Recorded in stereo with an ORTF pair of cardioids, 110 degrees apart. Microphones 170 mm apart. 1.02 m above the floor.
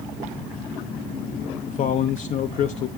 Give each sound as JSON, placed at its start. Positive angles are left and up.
{"t": 1.7, "sound": "a man speaking", "azimuth_deg": 50, "distance_m": 0.5}